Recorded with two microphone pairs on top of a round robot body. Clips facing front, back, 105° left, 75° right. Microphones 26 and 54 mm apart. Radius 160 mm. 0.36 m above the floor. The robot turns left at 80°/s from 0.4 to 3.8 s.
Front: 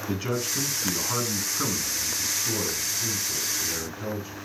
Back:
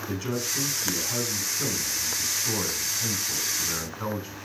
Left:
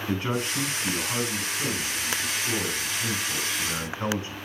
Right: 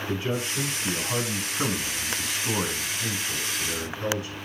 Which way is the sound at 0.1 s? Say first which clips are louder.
Front 2 dB, left 2 dB; 70° left.